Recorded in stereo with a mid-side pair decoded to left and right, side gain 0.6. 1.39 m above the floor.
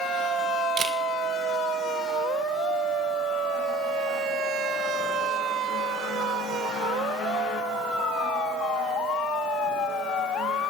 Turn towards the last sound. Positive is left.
turn(degrees=-35)